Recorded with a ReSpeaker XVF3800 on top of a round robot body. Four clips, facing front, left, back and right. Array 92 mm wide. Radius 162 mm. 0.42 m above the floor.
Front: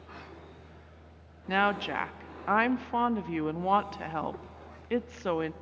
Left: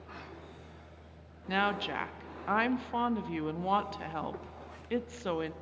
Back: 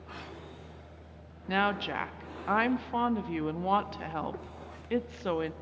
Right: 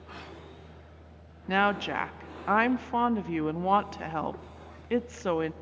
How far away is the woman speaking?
About 0.7 m.